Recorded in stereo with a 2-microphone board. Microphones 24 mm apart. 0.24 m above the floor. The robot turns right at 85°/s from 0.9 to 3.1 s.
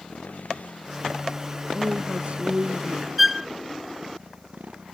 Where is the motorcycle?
80° left; by 4.9 s 90° right.